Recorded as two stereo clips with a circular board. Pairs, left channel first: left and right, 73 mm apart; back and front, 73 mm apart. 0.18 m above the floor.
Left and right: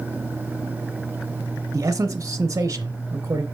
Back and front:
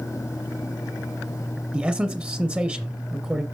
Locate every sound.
1.7 s a man speaking: 65° right, 1.6 m